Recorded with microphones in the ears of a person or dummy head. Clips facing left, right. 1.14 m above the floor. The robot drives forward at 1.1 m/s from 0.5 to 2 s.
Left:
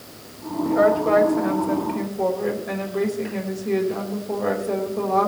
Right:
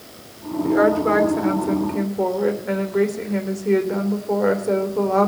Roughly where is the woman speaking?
Right.